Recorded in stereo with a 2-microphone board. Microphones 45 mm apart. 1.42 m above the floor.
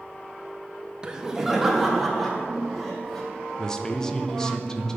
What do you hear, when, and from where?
1.0 s laughter: 20° right (ahead or behind), 0.5 m; by 3.2 s 5° left (ahead or behind), 2 m
3.6 s a man speaking: 15° left (ahead or behind), 0.5 m